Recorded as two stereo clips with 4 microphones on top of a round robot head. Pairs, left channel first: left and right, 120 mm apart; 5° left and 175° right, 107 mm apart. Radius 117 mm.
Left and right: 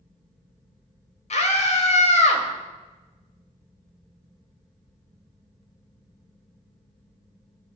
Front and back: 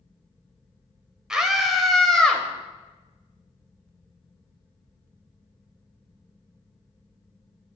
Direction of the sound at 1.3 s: 100° left.